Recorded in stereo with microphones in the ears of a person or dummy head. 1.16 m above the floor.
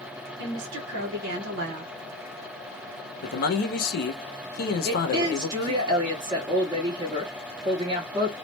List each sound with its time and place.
0.4 s a woman speaking: 60° right (ahead or behind), 1.2 m
3.2 s a man speaking: 50° left (ahead or behind), 0.7 m
4.8 s a woman speaking: 20° right (ahead or behind), 0.9 m